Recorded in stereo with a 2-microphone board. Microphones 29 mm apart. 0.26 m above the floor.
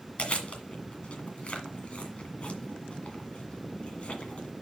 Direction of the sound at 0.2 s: 50° left (ahead or behind).